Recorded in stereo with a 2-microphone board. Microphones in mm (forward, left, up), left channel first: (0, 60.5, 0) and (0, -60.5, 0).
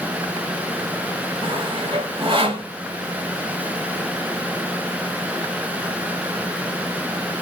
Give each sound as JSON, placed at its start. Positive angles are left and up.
{"t": 1.4, "sound": "sawing", "side_deg": -45, "distance_m": 1.5}